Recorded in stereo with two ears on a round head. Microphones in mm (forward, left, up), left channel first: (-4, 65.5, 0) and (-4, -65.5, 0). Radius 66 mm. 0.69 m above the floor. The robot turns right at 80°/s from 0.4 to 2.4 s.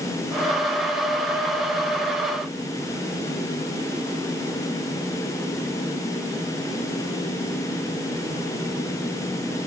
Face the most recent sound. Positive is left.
No sound to turn to.